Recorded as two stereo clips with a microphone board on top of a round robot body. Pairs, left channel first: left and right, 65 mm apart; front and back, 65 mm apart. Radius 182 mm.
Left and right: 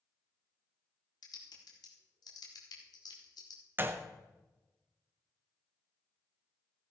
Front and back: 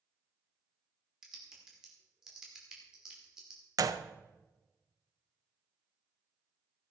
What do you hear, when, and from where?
1.2 s typing on a keyboard: 100° left, 2 m
3.8 s a gunshot: 150° right, 0.7 m